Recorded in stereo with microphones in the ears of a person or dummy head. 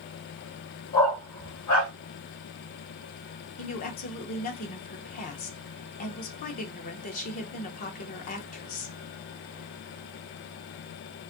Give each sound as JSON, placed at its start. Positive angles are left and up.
{"t": 0.9, "sound": "a dog barking", "side_deg": 50, "distance_m": 1.6}
{"t": 3.6, "sound": "a woman speaking", "side_deg": 40, "distance_m": 0.7}